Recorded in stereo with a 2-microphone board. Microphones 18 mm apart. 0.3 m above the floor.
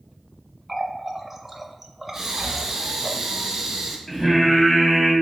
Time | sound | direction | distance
0.7 | a running tap | 15° right (ahead or behind) | 0.6 m
2.1 | breathing | 30° right (ahead or behind) | 1.1 m
4.1 | singing | 15° left (ahead or behind) | 1.6 m